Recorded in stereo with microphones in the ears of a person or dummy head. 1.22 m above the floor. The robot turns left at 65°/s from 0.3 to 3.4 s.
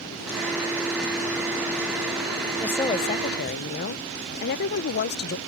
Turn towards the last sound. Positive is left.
turn(degrees=125)